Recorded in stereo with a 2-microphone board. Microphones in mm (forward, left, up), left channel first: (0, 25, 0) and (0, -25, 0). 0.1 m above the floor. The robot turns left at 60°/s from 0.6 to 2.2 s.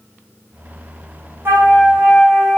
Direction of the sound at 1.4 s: 130° right.